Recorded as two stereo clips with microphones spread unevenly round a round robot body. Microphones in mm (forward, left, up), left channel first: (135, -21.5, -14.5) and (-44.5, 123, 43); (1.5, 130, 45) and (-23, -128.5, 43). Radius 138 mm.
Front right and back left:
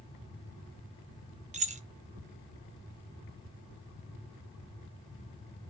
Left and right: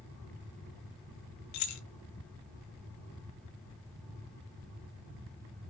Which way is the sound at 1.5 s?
75° left.